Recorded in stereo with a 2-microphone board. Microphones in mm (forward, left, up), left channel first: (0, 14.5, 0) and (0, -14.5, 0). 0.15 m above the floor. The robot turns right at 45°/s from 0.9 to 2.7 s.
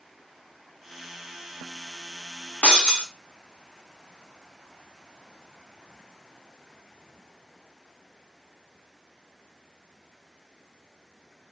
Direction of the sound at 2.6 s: 60° left (ahead or behind).